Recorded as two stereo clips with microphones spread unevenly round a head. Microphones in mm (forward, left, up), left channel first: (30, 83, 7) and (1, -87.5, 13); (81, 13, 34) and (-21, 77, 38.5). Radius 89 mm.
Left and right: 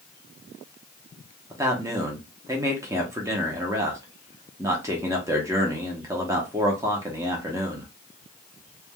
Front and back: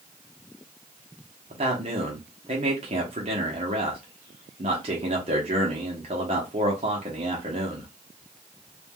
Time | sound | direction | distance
1.5 | a man speaking | 170° right | 0.7 m